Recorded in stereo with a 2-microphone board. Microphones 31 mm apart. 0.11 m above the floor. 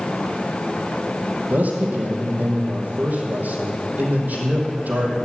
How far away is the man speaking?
About 4 m.